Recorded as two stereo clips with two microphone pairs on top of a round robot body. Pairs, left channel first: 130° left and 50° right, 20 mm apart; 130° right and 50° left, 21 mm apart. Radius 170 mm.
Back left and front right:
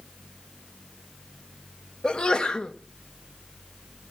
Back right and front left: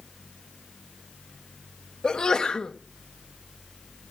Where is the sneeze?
Straight behind, 1.4 m.